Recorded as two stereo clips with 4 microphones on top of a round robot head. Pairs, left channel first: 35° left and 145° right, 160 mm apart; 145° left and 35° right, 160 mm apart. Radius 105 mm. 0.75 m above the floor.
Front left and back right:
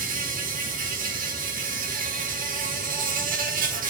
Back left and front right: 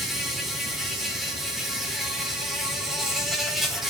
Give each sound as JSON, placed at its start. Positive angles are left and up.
{"t": 0.0, "sound": "an insect", "azimuth_deg": -120, "distance_m": 4.0}